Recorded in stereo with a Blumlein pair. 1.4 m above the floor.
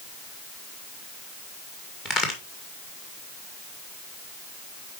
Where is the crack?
20° left, 2 m.